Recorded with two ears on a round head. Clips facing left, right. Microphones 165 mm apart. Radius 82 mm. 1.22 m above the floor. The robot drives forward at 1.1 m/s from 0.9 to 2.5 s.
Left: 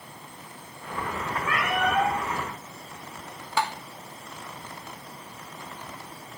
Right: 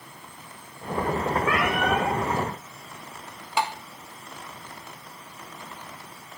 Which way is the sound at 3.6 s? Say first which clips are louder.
Right 1 dB; 15° right (ahead or behind).